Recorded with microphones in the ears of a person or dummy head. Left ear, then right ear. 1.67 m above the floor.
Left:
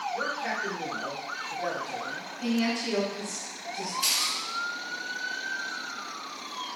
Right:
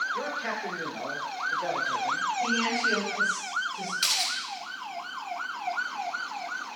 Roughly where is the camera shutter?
Right.